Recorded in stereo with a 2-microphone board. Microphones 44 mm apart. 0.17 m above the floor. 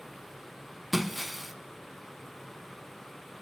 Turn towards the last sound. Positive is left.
turn(degrees=0)  # may be behind; listen again after turning